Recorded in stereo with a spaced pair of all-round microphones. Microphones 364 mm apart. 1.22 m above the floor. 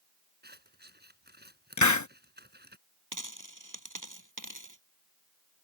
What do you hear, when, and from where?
0.4 s scissors: 25° right (ahead or behind)
1.8 s a hiss: 50° left (ahead or behind)
3.1 s a dropped coin: 55° right (ahead or behind)